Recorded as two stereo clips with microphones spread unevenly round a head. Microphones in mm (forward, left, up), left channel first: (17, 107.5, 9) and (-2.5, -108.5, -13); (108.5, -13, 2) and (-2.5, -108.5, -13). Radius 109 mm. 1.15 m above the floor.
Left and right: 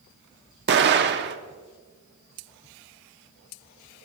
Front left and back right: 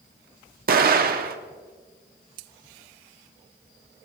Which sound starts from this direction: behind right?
An explosion, at 0.7 s.